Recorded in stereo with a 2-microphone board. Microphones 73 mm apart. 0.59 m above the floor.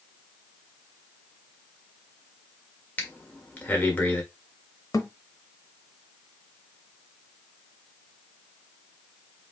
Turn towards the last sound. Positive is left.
turn(degrees=50)  # may be behind; listen again after turning